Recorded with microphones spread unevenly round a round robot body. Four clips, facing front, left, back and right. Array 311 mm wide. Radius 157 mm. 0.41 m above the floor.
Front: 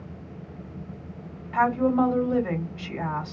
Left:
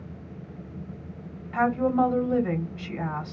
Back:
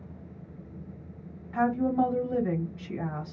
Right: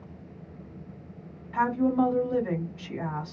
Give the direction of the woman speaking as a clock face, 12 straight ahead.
10 o'clock.